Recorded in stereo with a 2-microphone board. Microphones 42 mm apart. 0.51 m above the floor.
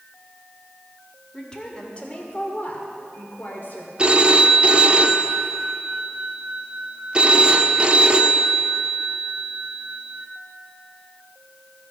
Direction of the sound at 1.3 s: 15° left (ahead or behind).